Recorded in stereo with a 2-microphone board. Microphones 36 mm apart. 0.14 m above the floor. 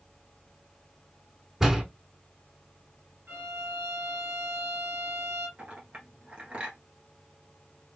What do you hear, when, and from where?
1.6 s a door slam: 15° right (ahead or behind), 0.8 m
3.3 s a violin: 65° right (ahead or behind), 1.6 m
5.6 s a clink: 30° right (ahead or behind), 1.5 m